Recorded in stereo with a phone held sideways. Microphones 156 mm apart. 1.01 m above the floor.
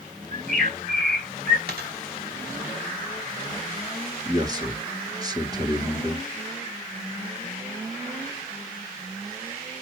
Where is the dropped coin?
80° right, 2.5 m.